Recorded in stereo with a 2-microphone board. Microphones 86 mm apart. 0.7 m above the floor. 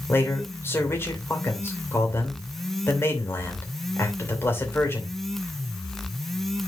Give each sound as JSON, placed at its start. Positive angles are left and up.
{"t": 0.1, "sound": "a man speaking", "side_deg": 25, "distance_m": 3.0}